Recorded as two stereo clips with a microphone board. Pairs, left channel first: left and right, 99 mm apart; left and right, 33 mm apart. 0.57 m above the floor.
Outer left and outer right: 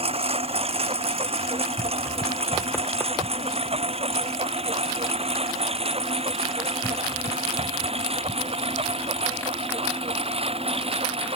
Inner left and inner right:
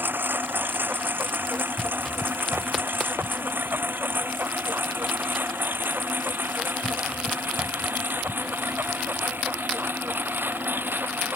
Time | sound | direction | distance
0.0 | a lawn mower | 80° right | ?